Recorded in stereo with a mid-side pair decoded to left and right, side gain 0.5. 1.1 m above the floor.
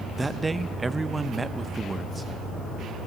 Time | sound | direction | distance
0.2 | a man speaking | 15° right | 0.6 m